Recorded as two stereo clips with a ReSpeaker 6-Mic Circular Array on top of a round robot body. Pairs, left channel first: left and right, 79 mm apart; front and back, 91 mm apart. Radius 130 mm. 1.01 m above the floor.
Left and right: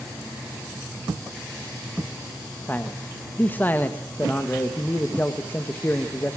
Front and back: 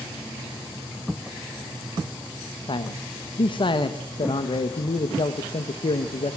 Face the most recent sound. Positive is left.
turn(degrees=25)